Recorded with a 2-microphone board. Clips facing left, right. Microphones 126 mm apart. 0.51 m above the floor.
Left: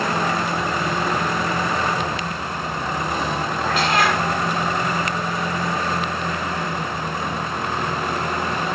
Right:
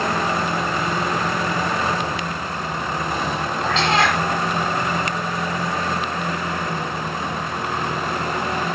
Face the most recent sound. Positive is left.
turn(degrees=-25)  # may be behind; listen again after turning